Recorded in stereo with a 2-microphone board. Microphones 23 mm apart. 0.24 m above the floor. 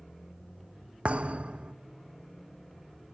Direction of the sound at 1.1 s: 60° right (ahead or behind).